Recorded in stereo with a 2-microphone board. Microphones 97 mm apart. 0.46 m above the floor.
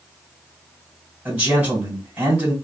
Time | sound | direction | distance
1.2 | a man speaking | 15° right (ahead or behind) | 1.6 m